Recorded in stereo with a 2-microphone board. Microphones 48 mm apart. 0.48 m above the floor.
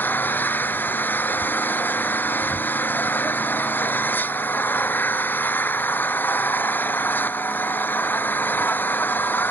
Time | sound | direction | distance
0.0 | an engine running | 40° left (ahead or behind) | ?